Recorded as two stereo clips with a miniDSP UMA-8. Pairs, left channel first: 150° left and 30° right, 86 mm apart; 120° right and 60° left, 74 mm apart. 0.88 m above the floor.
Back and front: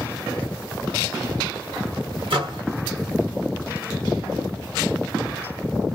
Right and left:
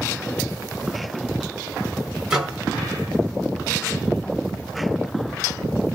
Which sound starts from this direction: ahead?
A microwave, at 2.3 s.